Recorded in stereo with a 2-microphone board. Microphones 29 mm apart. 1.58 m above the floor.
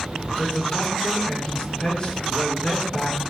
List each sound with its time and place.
0.4 s a man speaking: 35° left (ahead or behind), 6.5 m